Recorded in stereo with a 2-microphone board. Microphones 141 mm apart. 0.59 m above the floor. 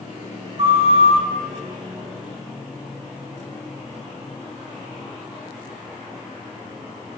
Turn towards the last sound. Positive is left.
turn(degrees=-45)  # may be behind; listen again after turning